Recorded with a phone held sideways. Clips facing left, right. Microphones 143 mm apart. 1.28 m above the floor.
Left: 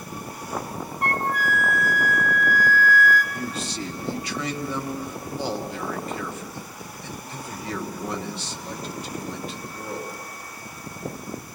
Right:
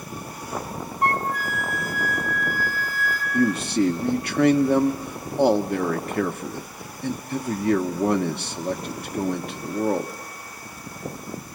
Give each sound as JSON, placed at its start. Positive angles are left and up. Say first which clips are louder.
{"t": 1.0, "sound": "a flute", "louder": "right 1 dB", "side_deg": 55, "distance_m": 2.5}
{"t": 3.3, "sound": "a man speaking", "louder": "right 10 dB", "side_deg": -60, "distance_m": 1.0}